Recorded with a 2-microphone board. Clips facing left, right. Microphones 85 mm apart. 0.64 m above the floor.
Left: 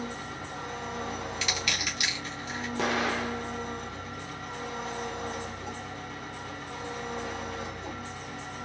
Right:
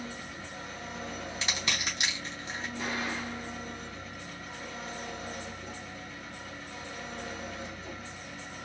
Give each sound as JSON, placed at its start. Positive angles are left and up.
{"t": 0.0, "sound": "an engine running", "side_deg": 70, "distance_m": 1.7}
{"t": 1.4, "sound": "crushing", "side_deg": -35, "distance_m": 2.5}
{"t": 2.8, "sound": "an explosion", "side_deg": 80, "distance_m": 0.6}